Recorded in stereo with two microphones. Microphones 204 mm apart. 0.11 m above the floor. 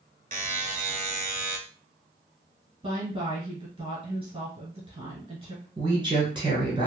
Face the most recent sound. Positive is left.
turn(degrees=-25)  # may be behind; listen again after turning